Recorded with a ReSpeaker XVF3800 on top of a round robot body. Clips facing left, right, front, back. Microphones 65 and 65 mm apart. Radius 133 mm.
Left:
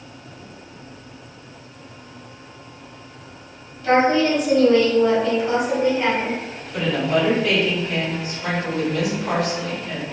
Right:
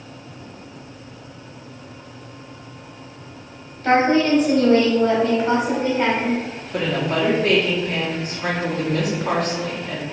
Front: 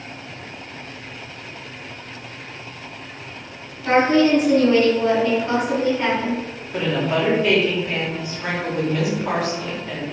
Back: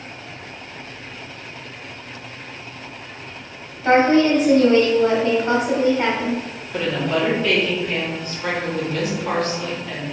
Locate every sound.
3.8 s a woman speaking: 125° right, 1.4 m
6.7 s a woman speaking: 75° right, 1.4 m